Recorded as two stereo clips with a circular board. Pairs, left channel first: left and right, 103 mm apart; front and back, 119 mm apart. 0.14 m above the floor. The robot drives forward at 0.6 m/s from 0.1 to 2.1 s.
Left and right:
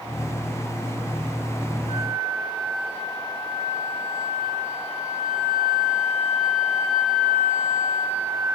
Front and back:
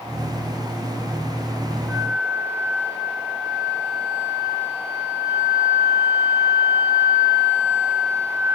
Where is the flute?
105° right, 3.5 m.